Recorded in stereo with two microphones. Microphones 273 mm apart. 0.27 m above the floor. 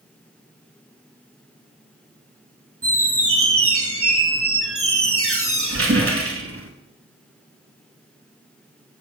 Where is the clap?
No clap in this recording.